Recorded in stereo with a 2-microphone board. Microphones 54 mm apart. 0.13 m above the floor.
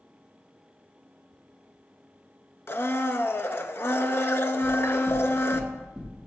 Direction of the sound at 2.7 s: 45° left (ahead or behind).